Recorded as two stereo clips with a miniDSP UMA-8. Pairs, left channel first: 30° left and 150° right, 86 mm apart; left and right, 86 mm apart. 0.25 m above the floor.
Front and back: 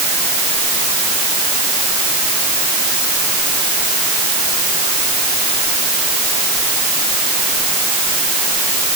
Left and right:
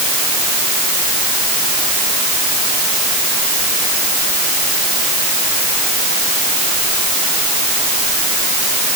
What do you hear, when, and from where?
Only background noise.